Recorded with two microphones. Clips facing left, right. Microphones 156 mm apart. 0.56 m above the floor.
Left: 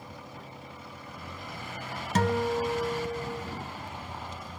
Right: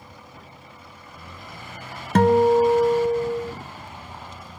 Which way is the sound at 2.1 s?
55° right (ahead or behind).